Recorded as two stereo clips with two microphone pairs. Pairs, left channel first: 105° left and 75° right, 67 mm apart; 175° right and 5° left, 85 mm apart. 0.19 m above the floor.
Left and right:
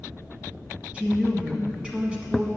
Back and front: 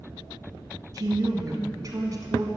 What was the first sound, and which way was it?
A woman speaking, 5° right.